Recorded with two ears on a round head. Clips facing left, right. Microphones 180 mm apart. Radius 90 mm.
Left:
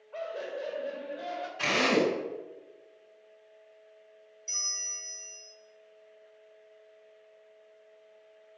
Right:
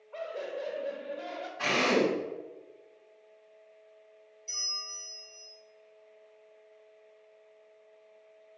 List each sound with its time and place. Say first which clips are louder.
0.1 s laughter: left 1 dB; 5° left (ahead or behind), 2.5 m
1.6 s a drill: even; 40° left (ahead or behind), 5 m
4.5 s a bell: even; 20° left (ahead or behind), 4.5 m